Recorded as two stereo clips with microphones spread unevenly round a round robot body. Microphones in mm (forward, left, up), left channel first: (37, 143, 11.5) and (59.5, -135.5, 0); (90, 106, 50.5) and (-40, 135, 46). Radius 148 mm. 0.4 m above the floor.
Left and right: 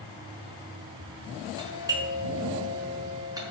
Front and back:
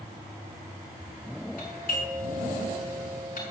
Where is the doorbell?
5° right, 6 m.